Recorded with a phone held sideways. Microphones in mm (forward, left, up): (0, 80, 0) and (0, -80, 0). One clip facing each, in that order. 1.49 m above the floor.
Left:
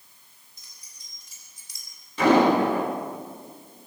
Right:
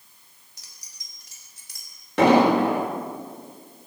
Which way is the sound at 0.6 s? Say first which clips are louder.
Right 3 dB; 75° right (ahead or behind).